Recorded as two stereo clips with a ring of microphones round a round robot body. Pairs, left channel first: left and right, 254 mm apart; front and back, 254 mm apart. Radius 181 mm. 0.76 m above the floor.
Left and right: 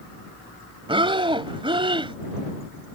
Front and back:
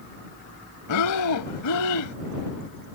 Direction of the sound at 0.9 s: 20° right.